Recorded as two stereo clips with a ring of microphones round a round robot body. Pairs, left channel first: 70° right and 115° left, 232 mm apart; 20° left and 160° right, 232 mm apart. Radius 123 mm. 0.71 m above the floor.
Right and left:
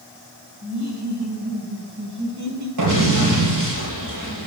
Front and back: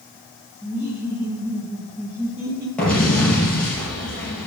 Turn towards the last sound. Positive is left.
turn(degrees=110)